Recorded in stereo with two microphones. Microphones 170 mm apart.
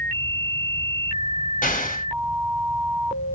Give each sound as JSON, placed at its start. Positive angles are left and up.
{"t": 1.6, "sound": "an explosion", "side_deg": 50, "distance_m": 0.9}